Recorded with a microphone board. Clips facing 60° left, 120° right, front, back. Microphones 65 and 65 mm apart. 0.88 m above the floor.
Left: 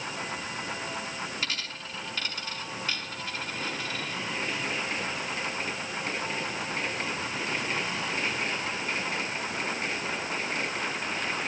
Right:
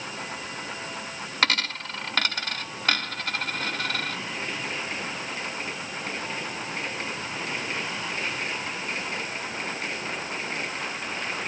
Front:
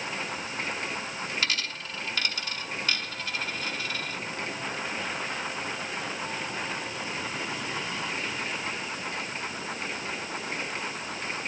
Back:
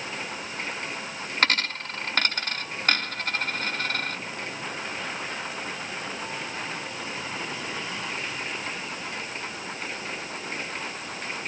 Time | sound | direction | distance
1.4 | a dropped coin | 145° right | 0.8 m